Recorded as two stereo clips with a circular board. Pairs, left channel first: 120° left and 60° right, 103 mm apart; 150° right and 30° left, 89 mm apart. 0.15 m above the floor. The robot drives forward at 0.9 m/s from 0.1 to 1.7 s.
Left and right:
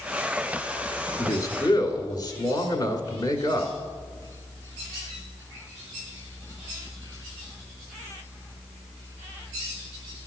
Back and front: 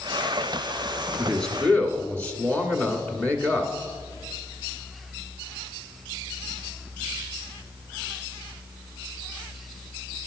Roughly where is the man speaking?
Behind left.